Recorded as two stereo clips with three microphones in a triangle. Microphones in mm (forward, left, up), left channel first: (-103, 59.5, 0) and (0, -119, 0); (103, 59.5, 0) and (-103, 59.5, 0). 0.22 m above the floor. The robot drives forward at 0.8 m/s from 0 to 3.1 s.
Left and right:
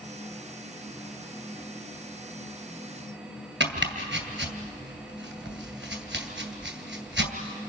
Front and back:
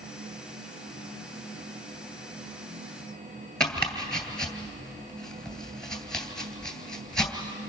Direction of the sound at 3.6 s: 85° right.